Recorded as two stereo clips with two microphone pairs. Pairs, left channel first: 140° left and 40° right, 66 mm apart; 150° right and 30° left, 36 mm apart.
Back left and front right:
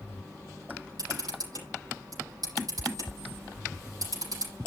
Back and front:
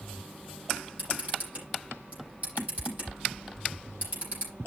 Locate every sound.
1.0 s a camera shutter: 10° right, 9.5 m